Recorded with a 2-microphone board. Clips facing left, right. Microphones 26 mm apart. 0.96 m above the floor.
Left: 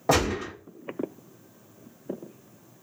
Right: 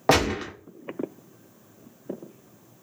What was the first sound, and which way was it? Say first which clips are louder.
A gunshot: right 2 dB; 65° right (ahead or behind).